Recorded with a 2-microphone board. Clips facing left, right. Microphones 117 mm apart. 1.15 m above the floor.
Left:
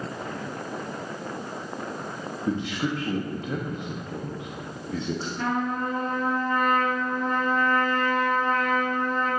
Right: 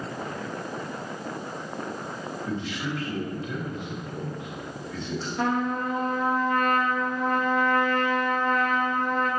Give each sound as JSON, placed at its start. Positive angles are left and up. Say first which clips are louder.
{"t": 2.5, "sound": "a man speaking", "louder": "left 5 dB", "side_deg": 50, "distance_m": 0.9}
{"t": 5.4, "sound": "a trumpet", "louder": "right 3 dB", "side_deg": -80, "distance_m": 1.5}